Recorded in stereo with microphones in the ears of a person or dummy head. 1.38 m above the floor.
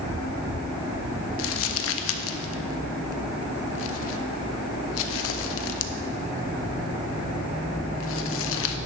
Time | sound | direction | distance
1.4 | crumpling | 65° left (ahead or behind) | 0.9 m